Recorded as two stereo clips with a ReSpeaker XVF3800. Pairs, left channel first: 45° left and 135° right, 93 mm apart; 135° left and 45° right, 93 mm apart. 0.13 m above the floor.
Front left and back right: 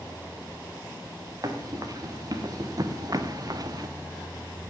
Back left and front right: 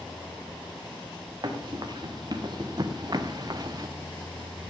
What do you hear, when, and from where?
1.4 s running footsteps: 85° right, 2.5 m; by 3.9 s 90° right, 0.7 m